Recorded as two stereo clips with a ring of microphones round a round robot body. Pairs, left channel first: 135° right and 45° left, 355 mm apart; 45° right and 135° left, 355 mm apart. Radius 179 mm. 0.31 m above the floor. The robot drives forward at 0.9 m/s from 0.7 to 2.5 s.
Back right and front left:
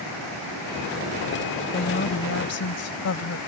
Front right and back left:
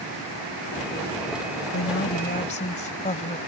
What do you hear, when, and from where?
1.7 s a woman speaking: 80° right; by 3.4 s 110° right